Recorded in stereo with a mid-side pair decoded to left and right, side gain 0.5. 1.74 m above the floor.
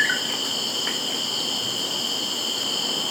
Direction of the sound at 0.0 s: 10° left.